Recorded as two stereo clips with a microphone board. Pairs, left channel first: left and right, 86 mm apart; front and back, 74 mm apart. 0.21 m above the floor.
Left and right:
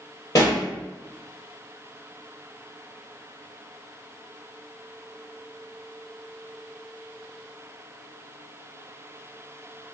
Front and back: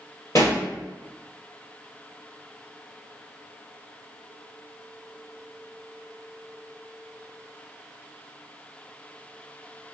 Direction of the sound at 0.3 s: 45° left.